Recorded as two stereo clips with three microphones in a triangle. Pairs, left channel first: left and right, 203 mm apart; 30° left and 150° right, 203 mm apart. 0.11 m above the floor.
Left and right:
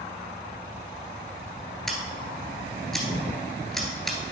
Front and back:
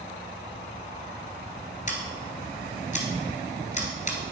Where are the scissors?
5° left, 1.7 m.